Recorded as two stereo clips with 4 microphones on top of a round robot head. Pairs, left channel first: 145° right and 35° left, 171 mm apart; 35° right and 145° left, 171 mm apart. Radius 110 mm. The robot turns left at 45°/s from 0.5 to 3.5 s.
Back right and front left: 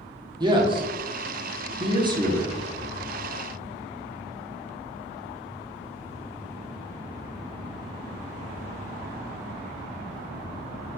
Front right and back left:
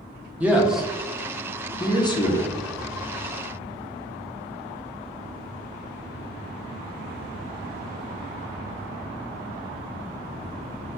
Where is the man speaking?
70° left, 0.9 m; by 2.5 s 20° right, 0.9 m.